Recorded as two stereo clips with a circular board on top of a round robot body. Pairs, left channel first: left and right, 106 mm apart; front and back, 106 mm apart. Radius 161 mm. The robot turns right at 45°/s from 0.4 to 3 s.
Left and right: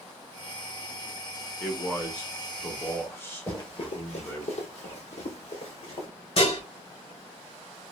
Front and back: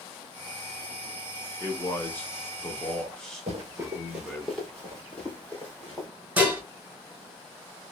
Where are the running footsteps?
155° left, 0.6 m; by 6.1 s 75° left, 2 m.